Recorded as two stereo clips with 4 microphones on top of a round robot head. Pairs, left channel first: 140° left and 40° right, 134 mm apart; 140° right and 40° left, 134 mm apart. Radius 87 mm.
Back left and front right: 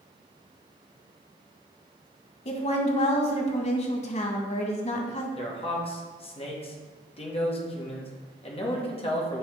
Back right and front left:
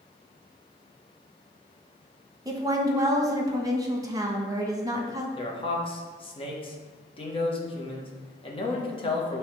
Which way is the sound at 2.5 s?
105° left.